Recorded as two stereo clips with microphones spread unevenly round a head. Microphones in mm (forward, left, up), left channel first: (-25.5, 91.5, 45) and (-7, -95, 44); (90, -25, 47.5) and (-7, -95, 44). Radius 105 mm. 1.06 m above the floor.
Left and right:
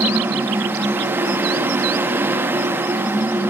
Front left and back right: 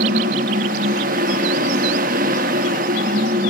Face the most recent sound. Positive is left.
turn(degrees=-165)